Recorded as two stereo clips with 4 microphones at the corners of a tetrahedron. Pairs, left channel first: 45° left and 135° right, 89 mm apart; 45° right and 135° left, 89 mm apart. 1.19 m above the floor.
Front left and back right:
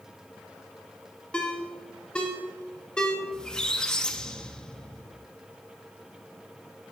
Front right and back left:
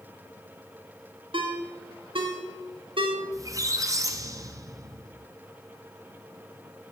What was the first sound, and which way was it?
A ringtone, 125° left.